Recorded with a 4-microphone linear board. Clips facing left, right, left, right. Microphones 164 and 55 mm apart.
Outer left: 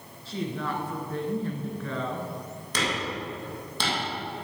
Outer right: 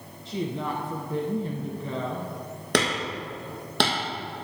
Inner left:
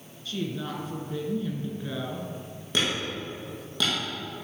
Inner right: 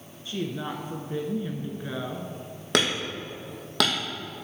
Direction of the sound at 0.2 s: 20° right (ahead or behind).